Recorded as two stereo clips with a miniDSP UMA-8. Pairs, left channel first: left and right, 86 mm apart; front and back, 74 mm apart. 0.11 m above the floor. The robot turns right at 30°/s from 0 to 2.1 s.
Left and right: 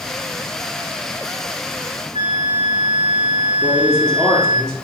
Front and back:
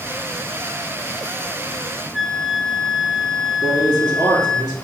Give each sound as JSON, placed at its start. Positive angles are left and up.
{"t": 2.1, "sound": "a flute", "azimuth_deg": -85, "distance_m": 3.5}
{"t": 3.6, "sound": "a man speaking", "azimuth_deg": 5, "distance_m": 2.5}